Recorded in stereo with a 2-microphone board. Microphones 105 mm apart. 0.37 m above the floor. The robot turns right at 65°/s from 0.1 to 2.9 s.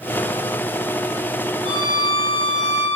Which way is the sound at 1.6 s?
65° right.